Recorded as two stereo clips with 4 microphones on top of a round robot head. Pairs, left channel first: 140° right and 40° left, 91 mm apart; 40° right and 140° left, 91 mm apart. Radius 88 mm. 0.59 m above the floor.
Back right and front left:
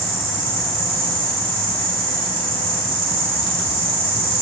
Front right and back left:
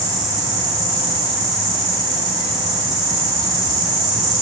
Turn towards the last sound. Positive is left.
turn(degrees=55)